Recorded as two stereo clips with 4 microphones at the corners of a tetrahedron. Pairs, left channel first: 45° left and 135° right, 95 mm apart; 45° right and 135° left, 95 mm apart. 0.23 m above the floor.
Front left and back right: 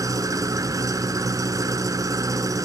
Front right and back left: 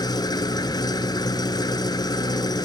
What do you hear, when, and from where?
0.0 s an engine running: 85° right, 1.0 m